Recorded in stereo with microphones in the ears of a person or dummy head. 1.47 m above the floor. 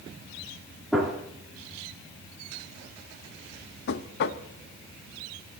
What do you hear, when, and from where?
0.9 s a gunshot: 5° left (ahead or behind), 3.5 m
3.9 s knocking: 60° left (ahead or behind), 1.0 m